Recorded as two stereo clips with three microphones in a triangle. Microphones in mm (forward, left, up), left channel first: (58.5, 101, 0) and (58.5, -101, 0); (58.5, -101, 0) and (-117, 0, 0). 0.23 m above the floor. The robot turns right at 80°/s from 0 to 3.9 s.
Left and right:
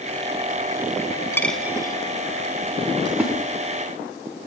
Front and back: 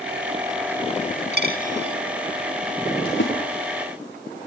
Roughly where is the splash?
Ahead.